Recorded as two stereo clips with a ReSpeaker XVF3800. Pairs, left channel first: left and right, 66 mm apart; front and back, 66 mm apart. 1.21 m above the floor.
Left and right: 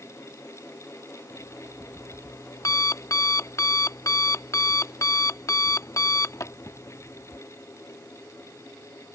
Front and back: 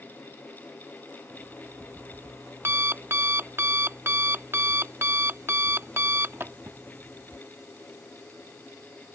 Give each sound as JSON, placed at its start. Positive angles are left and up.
{"t": 1.3, "sound": "an alarm clock", "azimuth_deg": 130}